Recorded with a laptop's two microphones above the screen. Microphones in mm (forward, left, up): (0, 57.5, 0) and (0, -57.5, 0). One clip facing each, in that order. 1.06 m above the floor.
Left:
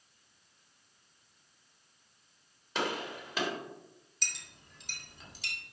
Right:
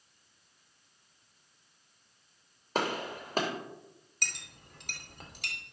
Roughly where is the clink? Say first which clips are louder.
Right 4 dB; right.